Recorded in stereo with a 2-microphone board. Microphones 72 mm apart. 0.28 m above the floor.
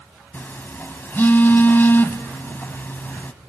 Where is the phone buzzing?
30° left (ahead or behind), 0.8 m.